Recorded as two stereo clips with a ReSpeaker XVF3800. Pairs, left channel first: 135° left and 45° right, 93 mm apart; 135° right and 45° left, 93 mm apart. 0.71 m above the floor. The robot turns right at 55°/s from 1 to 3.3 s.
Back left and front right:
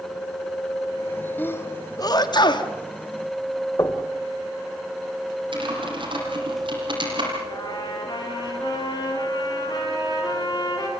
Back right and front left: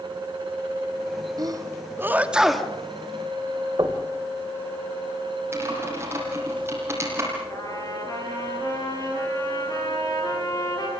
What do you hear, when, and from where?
1.4 s a sneeze: 70° left, 1.4 m; by 2.7 s 140° left, 1.4 m
3.8 s knocking: 85° left, 2.5 m
5.5 s typing on a keyboard: 20° right, 7.5 m
7.5 s a trumpet: 175° left, 6 m